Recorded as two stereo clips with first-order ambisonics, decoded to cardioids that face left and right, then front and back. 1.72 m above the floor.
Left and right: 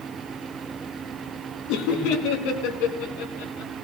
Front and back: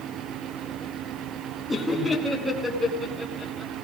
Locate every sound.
1.7 s laughter: 85° left, 2 m; by 3.7 s 105° left, 5 m